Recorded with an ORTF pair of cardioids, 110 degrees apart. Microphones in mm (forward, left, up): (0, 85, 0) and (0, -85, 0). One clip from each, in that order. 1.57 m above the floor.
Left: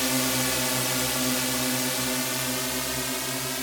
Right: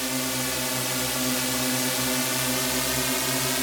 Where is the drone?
20° left; by 3.6 s 30° right.